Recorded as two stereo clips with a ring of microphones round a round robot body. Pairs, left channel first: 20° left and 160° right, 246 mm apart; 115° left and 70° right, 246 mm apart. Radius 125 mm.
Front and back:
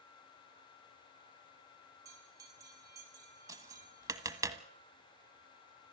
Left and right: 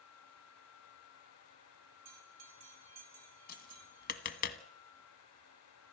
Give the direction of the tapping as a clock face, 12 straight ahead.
8 o'clock.